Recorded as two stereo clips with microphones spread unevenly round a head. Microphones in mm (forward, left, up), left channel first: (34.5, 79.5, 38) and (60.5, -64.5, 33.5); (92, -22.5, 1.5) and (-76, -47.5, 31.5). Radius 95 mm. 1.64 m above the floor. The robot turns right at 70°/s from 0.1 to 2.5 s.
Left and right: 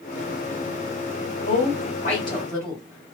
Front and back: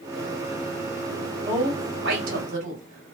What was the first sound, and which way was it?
A woman speaking, 110° left.